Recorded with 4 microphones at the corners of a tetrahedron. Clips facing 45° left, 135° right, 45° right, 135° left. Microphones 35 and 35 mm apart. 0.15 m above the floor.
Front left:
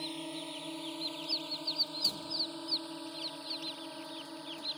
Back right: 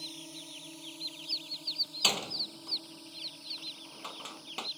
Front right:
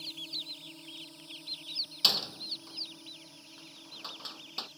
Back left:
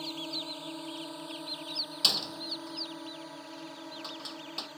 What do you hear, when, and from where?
0.0 s a drone: 95° left
2.0 s a door slam: 135° right